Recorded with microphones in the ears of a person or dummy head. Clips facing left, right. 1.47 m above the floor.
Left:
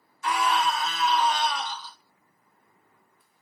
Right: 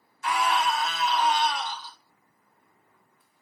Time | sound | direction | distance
0.2 | a scream | 80° left | 1.8 m